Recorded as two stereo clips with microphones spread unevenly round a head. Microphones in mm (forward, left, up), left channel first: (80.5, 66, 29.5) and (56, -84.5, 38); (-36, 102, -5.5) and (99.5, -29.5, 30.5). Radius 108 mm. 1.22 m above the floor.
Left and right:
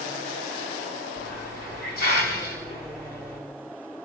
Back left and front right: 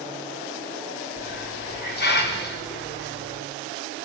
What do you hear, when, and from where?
1.2 s a hiss: 110° left, 4 m